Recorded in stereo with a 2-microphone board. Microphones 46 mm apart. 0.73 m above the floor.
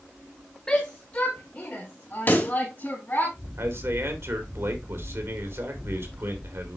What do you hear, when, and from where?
0.7 s a shout: 20° left (ahead or behind), 1.2 m; by 3.3 s 40° left (ahead or behind), 4.5 m
2.3 s a pop: 45° left (ahead or behind), 2 m
3.6 s a man speaking: 65° right (ahead or behind), 2.5 m